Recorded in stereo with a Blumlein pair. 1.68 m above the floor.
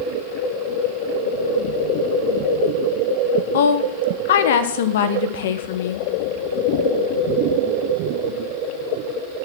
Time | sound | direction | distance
3.5 | a woman speaking | 55° left | 1.2 m